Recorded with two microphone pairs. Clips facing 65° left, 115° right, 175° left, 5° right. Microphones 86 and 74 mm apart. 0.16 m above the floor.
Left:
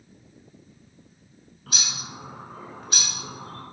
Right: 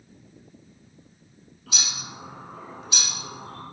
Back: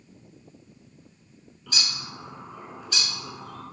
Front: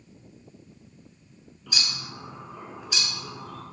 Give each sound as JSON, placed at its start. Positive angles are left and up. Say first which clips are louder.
{"t": 1.7, "sound": "a bird", "louder": "even, even", "azimuth_deg": 75, "distance_m": 0.9}